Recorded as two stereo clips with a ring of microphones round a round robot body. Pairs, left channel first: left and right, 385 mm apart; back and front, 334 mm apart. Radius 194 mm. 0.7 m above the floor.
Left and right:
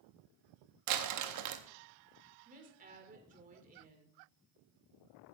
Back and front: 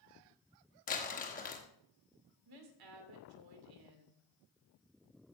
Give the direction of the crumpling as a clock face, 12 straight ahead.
4 o'clock.